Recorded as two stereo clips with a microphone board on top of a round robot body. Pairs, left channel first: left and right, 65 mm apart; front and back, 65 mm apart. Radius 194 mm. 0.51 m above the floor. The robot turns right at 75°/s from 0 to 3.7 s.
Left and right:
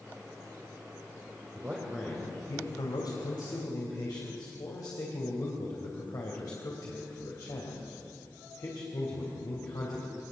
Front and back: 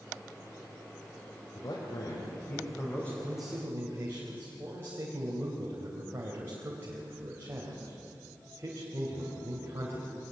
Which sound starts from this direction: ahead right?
A man speaking, at 1.6 s.